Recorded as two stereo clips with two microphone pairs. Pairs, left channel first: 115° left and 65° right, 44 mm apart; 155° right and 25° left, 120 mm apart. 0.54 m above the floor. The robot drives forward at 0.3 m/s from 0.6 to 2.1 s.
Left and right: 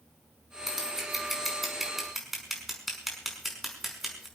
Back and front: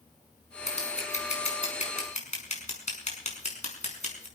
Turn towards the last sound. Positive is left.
turn(degrees=-150)